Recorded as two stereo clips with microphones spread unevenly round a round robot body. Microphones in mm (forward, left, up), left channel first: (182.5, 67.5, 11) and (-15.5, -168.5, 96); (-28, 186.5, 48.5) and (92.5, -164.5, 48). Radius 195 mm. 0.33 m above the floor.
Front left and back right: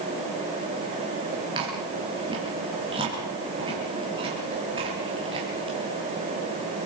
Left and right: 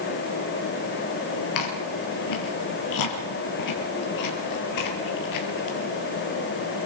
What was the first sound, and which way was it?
Chewing, 150° left.